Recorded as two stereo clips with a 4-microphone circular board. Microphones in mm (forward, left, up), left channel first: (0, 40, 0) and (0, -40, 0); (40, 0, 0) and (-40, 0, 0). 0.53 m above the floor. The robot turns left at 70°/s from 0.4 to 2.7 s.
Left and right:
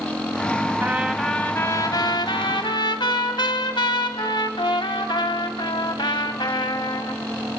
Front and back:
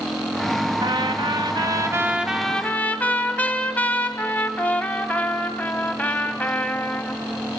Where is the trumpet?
155° right, 1.5 m; by 7.2 s 70° left, 1.5 m.